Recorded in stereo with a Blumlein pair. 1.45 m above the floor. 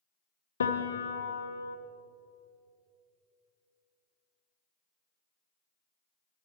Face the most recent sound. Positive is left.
turn(degrees=70)